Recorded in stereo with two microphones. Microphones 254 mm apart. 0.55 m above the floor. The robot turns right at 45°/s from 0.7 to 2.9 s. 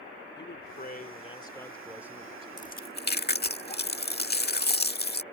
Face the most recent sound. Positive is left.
turn(degrees=40)  # may be behind; listen again after turning